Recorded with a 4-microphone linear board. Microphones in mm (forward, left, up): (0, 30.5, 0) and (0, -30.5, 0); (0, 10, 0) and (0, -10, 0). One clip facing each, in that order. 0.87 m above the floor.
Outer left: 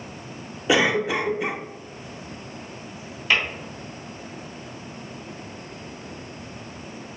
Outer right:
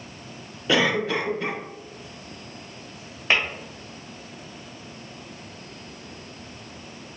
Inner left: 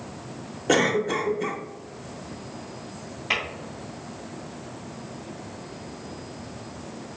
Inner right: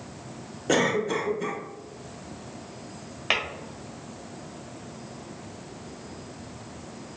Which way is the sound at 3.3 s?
35° right (ahead or behind).